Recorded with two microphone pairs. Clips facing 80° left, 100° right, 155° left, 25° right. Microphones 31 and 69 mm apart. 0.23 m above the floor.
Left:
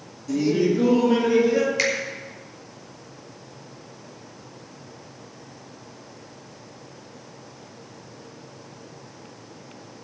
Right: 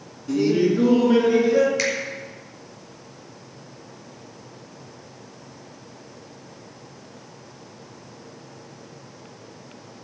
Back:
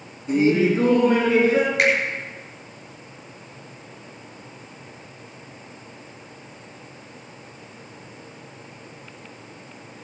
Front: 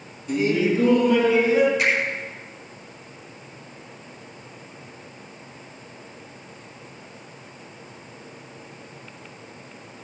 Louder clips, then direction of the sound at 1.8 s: Left 1 dB, back 3 dB; 165° left.